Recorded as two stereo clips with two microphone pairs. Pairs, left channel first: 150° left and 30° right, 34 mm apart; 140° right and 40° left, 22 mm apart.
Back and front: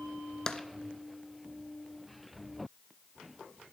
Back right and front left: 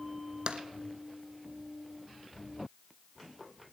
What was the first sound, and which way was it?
Tapping, 80° left.